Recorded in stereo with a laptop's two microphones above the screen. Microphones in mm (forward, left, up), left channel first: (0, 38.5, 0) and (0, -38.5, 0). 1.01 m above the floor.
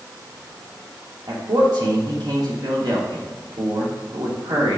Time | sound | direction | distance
1.3 | a man speaking | 75° right (ahead or behind) | 2.5 m